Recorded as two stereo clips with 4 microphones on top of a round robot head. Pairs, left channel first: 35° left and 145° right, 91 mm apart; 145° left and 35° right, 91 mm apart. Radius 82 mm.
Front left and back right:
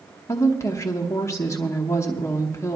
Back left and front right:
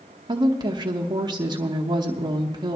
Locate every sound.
0.3 s a woman speaking: 20° right, 1.0 m